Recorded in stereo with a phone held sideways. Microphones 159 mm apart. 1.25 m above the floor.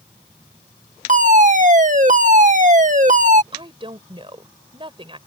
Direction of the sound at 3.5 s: 35° right (ahead or behind).